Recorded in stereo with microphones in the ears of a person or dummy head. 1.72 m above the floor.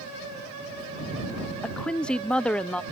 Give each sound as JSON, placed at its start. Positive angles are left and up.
{"t": 1.6, "sound": "a woman speaking", "side_deg": 5}